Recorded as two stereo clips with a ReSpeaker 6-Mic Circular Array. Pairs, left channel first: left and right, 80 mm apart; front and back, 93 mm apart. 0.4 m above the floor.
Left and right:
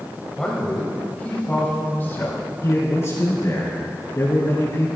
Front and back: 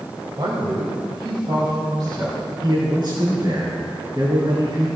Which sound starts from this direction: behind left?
A man speaking, at 2.6 s.